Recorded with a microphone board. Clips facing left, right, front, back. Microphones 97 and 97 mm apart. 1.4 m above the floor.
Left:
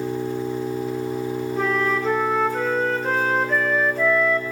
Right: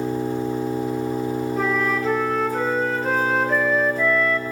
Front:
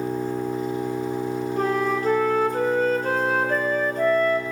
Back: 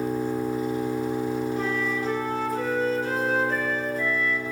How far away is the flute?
About 0.7 m.